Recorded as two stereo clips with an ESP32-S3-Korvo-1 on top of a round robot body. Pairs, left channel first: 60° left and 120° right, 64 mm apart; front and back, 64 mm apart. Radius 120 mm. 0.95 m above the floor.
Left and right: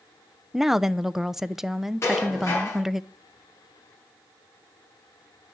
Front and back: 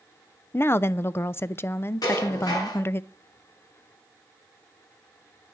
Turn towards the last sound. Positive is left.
turn(degrees=10)